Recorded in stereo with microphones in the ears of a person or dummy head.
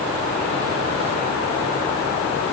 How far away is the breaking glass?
I don't hear breaking glass.